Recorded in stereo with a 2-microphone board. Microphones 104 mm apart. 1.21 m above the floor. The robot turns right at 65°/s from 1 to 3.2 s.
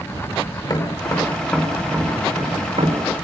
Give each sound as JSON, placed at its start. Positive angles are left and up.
{"t": 0.6, "sound": "tapping", "side_deg": 40, "distance_m": 4.5}